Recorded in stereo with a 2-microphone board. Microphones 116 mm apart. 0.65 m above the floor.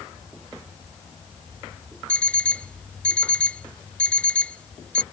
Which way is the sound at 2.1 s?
10° left (ahead or behind).